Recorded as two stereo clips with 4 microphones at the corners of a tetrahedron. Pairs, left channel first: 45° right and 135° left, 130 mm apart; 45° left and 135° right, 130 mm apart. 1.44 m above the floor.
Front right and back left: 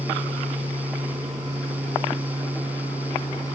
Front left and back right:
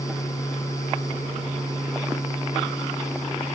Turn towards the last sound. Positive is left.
No sound to turn to.